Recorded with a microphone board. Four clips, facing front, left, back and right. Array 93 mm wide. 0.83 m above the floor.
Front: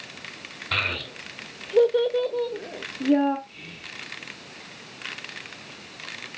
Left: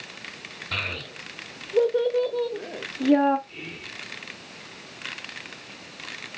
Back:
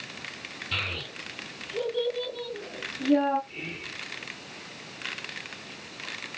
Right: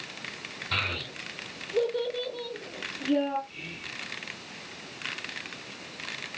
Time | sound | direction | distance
0.7 | a child speaking | straight ahead | 1.9 m
3.5 | whispering | 140° left | 2.5 m